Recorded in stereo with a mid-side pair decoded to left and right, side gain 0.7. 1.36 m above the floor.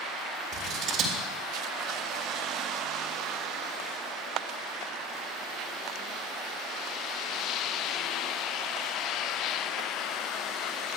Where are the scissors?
55° right, 4.5 m.